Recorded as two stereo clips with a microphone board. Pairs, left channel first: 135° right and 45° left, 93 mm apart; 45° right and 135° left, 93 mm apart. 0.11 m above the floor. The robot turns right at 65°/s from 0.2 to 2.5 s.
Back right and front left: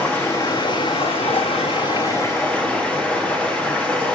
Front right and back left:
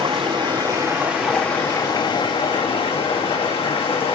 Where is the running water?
150° left, 1.7 m; by 4.2 s 60° right, 1.7 m.